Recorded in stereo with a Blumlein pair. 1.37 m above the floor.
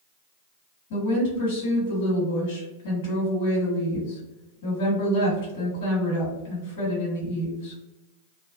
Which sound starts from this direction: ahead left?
A woman speaking, at 0.9 s.